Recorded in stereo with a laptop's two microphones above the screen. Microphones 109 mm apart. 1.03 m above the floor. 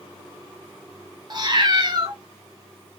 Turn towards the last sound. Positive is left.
turn(degrees=-40)  # may be behind; listen again after turning